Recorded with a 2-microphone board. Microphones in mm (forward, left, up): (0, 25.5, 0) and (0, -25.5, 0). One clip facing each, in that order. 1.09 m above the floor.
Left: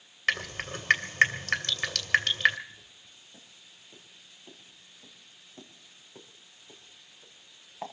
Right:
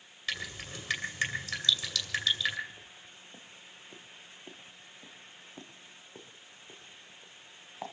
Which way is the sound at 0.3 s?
55° left (ahead or behind).